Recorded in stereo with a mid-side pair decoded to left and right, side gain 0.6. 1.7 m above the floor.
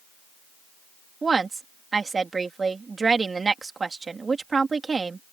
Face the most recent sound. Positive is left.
turn(degrees=-25)